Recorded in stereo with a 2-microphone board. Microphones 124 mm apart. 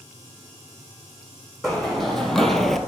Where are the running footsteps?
5° left (ahead or behind), 1.6 m; by 2.8 s centre (ahead or behind), 0.6 m.